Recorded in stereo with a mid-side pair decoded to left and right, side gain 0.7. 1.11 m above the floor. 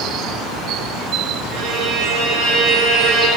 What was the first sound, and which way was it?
A violin, 55° right.